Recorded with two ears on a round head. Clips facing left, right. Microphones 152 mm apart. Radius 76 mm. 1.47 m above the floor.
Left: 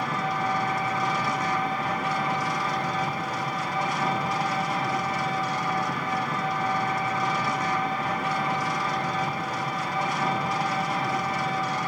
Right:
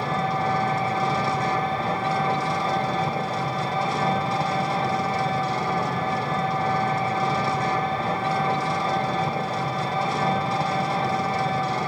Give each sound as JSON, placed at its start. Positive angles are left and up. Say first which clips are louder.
{"t": 0.0, "sound": "an engine running", "louder": "right 3 dB", "side_deg": -25, "distance_m": 2.5}